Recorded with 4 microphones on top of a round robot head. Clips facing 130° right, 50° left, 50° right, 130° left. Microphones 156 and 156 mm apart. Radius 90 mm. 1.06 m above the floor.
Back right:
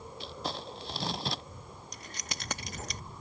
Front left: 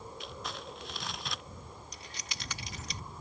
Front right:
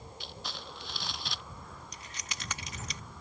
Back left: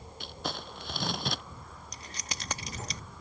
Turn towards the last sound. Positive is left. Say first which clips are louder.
# back right 3 dB, back left 3 dB
turn(degrees=-175)